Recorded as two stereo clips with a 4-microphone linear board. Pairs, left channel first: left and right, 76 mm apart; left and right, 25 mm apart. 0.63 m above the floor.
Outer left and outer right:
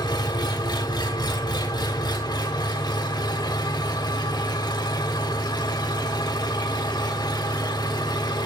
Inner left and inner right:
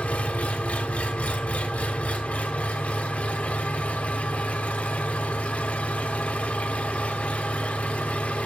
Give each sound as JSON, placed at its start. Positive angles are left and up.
{"t": 0.0, "sound": "an engine running", "side_deg": 75, "distance_m": 1.5}